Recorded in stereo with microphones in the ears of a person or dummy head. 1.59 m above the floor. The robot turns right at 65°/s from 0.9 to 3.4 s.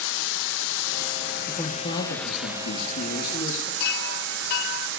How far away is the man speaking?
About 1.5 m.